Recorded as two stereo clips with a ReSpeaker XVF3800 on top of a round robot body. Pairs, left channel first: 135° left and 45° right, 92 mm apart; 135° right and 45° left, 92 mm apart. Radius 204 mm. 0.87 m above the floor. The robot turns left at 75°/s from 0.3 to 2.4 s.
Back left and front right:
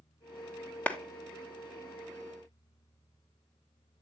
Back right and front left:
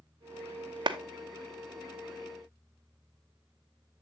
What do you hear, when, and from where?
0.9 s a clap: 65° left, 1.1 m; by 1.0 s 55° left, 1.1 m